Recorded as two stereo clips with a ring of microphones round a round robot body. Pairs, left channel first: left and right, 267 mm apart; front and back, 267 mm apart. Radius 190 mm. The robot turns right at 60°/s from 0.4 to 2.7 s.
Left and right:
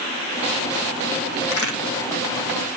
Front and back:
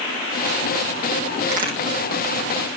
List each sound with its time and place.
1.5 s a crack: 115° left, 4 m; by 1.8 s 130° left, 4 m